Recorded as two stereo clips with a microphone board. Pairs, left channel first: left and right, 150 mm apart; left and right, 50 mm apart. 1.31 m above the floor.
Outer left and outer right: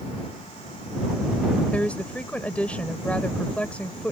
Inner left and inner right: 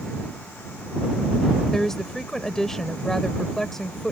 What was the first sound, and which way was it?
A woman speaking, 10° left (ahead or behind).